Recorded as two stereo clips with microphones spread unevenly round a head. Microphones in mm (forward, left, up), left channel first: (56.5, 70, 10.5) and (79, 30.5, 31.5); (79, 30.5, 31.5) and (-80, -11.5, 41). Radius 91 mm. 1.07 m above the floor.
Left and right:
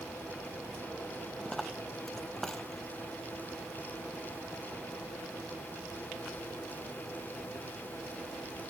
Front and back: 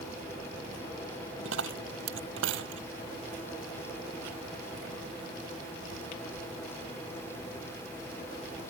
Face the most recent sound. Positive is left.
turn(degrees=-150)